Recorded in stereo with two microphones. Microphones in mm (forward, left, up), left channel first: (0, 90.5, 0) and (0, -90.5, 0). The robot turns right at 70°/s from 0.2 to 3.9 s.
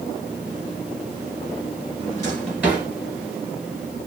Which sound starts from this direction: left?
A drawer, at 2.0 s.